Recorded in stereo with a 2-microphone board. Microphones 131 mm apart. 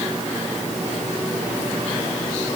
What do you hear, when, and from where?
Only background noise.